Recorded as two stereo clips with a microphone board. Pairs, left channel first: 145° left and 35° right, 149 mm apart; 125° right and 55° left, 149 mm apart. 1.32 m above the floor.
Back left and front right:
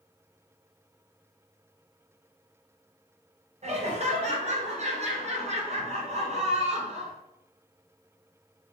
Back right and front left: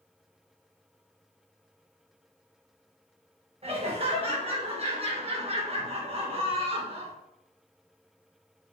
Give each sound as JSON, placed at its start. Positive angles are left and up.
{"t": 3.6, "sound": "laughter", "azimuth_deg": 5, "distance_m": 0.9}